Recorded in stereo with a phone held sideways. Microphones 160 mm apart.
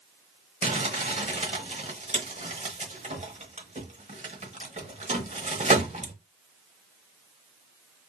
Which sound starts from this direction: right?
Crumpling, at 0.6 s.